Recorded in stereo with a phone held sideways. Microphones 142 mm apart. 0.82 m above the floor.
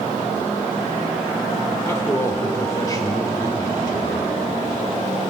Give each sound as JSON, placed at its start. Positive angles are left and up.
{"t": 1.9, "sound": "a man speaking", "side_deg": 20, "distance_m": 3.0}